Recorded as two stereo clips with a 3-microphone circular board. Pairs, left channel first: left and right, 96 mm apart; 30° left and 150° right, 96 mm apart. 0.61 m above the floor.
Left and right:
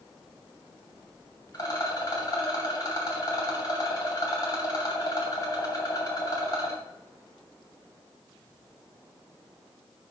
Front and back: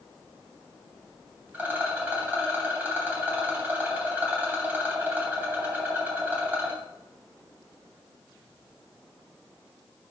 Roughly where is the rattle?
Behind left.